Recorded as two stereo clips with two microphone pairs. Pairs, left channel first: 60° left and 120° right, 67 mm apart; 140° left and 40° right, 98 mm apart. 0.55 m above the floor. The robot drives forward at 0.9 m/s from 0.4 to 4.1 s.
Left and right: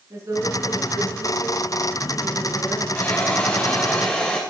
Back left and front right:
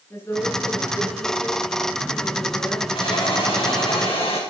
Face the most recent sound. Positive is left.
turn(degrees=140)